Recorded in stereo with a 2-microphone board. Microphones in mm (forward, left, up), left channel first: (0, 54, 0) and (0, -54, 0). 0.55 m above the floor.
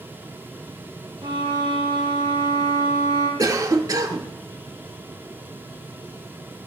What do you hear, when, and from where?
1.2 s a violin: 50° right (ahead or behind), 4.5 m
3.4 s a cough: 35° right (ahead or behind), 1.0 m